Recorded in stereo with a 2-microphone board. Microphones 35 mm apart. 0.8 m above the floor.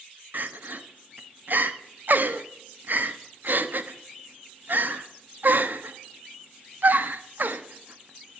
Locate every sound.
0.3 s crying: 55° right (ahead or behind), 1.1 m